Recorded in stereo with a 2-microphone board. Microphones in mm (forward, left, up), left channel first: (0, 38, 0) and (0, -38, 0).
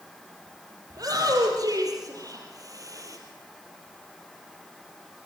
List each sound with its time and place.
0.9 s a shout: 55° right (ahead or behind), 5.5 m; by 3.2 s 45° right (ahead or behind), 4.5 m